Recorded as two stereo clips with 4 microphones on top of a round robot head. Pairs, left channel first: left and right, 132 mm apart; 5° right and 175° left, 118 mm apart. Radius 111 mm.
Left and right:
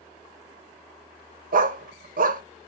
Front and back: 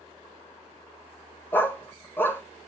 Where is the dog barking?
80° right, 0.9 m.